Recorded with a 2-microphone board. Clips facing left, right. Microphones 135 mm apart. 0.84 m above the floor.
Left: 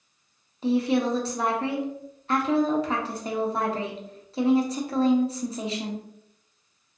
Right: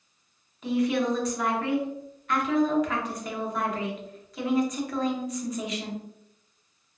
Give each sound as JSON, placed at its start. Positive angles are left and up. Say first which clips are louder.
{"t": 0.6, "sound": "a woman speaking", "louder": "left 2 dB", "side_deg": 30, "distance_m": 0.6}